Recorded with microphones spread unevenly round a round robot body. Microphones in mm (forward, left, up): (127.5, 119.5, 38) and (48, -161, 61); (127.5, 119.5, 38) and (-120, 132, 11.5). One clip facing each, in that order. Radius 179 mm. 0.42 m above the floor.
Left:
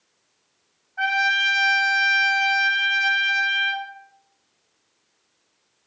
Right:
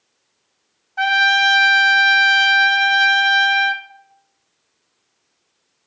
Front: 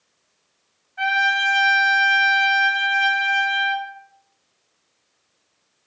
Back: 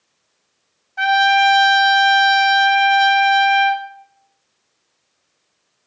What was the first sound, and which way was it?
A trumpet, 150° right.